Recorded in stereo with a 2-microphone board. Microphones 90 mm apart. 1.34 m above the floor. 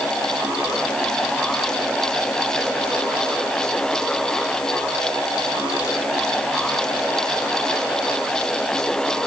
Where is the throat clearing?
No throat clearing in this recording.